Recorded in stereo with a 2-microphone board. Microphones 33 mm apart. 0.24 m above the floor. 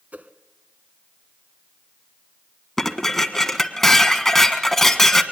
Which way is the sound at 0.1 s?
55° right (ahead or behind).